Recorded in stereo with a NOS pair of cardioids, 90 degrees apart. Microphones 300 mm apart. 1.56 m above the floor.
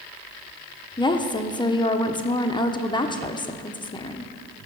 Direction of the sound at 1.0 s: 15° left.